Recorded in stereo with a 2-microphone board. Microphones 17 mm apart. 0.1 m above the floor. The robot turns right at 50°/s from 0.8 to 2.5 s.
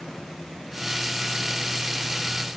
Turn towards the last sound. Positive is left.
No sound to turn to.